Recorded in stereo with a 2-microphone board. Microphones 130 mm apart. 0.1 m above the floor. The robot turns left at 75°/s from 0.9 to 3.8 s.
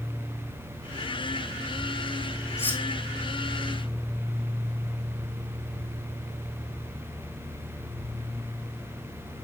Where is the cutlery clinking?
20° left (ahead or behind), 3.5 m; by 2.8 s centre (ahead or behind), 3.5 m.